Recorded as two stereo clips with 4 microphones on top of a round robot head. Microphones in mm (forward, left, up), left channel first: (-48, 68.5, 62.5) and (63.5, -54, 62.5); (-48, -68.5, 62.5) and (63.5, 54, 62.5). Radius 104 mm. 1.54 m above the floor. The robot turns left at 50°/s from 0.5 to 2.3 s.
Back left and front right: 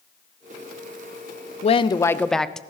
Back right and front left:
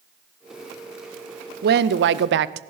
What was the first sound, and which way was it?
A woman speaking, 80° left.